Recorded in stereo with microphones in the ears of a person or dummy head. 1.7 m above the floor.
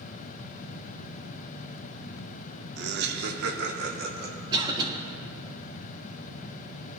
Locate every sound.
2.8 s laughter: 70° right (ahead or behind), 0.9 m; by 4.4 s 55° right (ahead or behind), 2.5 m
4.5 s a cough: 25° right (ahead or behind), 3 m